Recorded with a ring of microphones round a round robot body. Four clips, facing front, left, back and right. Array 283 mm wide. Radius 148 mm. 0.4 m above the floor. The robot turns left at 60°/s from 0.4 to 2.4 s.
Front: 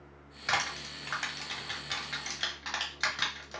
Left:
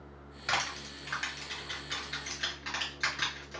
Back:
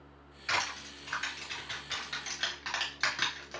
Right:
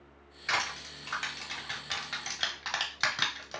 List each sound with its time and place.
0.5 s crushing: 25° left, 1.2 m; by 3.6 s 90° right, 1.2 m